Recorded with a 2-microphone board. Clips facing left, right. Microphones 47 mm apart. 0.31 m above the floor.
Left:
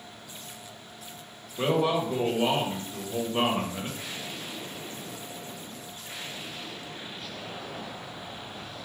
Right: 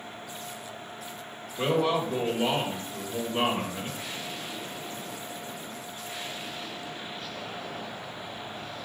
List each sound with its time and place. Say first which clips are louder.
1.6 s a man speaking: even; 15° left (ahead or behind), 1.5 m